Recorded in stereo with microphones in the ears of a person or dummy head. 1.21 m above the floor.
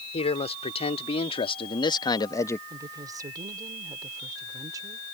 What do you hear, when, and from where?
0.1 s a man speaking: 35° left (ahead or behind); by 2.6 s 15° left (ahead or behind)
2.7 s a woman speaking: 15° right (ahead or behind)